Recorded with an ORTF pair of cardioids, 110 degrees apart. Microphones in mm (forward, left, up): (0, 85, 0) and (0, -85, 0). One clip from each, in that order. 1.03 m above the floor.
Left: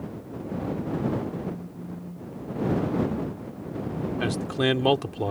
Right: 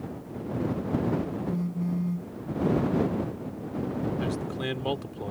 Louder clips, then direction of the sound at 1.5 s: Right 4 dB; 60° right.